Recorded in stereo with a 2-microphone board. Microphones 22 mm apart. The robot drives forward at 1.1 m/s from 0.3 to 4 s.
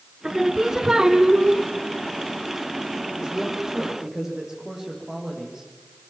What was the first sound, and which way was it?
Singing, 25° right (ahead or behind).